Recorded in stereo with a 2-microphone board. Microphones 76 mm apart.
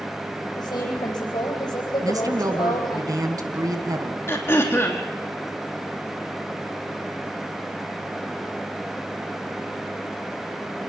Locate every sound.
0.6 s a woman speaking: 65° left (ahead or behind), 9.5 m
2.0 s a woman speaking: 50° right (ahead or behind), 2.5 m
4.3 s throat clearing: 30° left (ahead or behind), 3 m